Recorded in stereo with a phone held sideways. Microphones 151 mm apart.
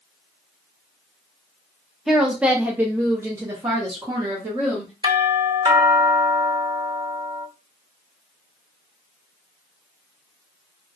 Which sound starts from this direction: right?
A doorbell, at 5.0 s.